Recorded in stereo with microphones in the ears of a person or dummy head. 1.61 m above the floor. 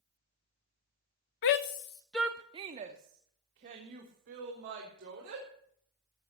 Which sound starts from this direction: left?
A shout, at 1.4 s.